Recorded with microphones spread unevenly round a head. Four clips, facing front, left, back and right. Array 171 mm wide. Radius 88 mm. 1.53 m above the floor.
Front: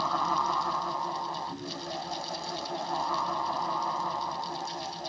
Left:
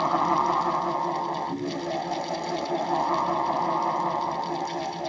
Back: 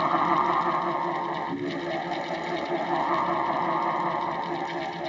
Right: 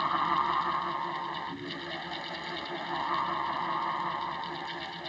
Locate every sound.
0.0 s a fan: 145° left